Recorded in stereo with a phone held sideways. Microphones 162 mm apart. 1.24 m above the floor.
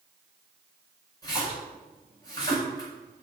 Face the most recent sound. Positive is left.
turn(degrees=25)  # may be behind; listen again after turning